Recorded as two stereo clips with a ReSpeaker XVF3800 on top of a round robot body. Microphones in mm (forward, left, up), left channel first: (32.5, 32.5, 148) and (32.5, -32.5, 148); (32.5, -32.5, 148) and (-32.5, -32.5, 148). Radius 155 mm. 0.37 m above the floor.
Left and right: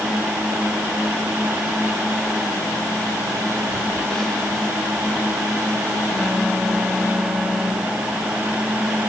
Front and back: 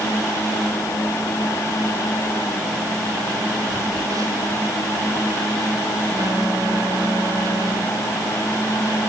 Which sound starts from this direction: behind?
A phone buzzing, at 3.7 s.